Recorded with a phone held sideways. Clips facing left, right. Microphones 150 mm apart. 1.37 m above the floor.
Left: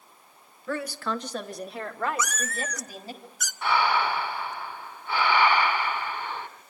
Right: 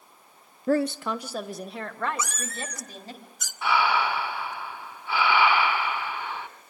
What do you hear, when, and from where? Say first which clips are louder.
0.7 s a woman speaking: right 6 dB; 40° right (ahead or behind), 0.6 m; by 3.2 s 10° left (ahead or behind), 4 m
2.2 s a cat meowing: left 2 dB; 30° right (ahead or behind), 0.9 m
3.6 s breathing: even; 5° right (ahead or behind), 2.5 m